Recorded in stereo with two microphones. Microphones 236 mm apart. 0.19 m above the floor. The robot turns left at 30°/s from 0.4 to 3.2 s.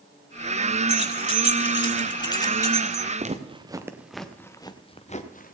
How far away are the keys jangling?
About 0.9 m.